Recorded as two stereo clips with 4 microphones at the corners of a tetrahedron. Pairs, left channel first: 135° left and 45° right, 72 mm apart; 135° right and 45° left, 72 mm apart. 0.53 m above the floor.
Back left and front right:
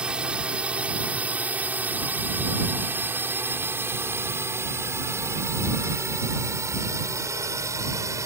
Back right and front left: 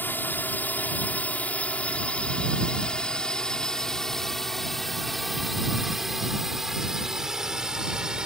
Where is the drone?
110° right; by 8.3 s 30° right.